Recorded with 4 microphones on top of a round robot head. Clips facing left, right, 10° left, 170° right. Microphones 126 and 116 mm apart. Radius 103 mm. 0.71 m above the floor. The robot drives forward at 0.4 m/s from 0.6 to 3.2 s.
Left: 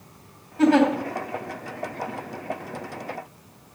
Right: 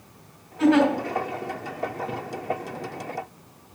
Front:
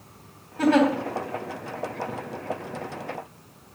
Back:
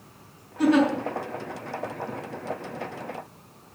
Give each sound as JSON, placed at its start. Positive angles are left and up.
{"t": 0.6, "sound": "a giggle", "azimuth_deg": 40, "distance_m": 3.5}